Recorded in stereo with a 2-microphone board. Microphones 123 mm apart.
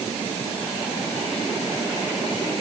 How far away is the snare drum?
I don't hear a snare drum.